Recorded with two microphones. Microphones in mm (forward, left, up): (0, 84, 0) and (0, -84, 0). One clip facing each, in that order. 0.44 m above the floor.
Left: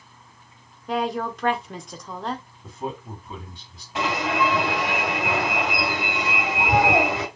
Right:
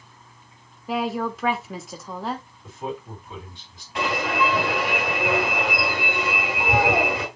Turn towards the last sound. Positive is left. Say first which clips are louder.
# even
turn(degrees=20)  # may be behind; listen again after turning